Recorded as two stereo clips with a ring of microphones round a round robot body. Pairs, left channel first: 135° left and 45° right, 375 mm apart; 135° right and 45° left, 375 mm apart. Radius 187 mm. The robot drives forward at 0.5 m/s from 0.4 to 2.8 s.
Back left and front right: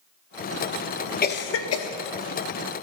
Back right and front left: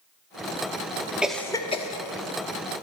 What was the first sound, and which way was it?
A cough, 130° left.